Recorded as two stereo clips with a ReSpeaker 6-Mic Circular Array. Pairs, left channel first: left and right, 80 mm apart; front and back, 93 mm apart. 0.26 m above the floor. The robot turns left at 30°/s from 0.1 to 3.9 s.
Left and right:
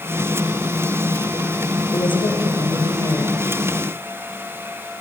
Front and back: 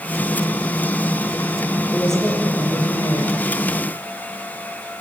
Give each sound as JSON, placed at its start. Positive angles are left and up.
{"t": 1.9, "sound": "a woman speaking", "azimuth_deg": 90, "distance_m": 6.0}